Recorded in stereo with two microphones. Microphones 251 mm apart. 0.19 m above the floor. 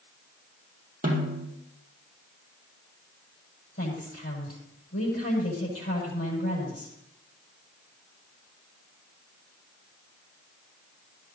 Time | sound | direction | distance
1.0 | a snare drum | 35° right (ahead or behind) | 5 m
3.8 | a woman speaking | 60° left (ahead or behind) | 6 m